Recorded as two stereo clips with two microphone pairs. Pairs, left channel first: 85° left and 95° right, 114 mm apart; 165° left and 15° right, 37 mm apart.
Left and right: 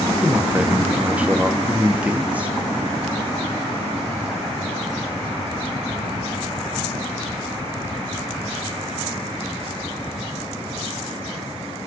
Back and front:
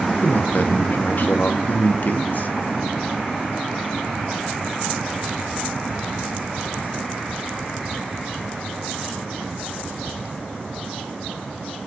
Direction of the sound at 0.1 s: 170° right.